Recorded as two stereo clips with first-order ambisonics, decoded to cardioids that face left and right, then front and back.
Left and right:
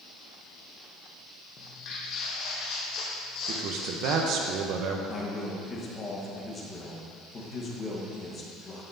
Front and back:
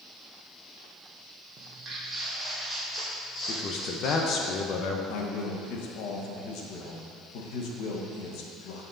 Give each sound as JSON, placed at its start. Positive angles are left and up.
{"t": 1.6, "sound": "footsteps", "azimuth_deg": 130, "distance_m": 2.0}
{"t": 3.5, "sound": "a man speaking", "azimuth_deg": -50, "distance_m": 0.8}
{"t": 5.1, "sound": "a man speaking", "azimuth_deg": 25, "distance_m": 1.2}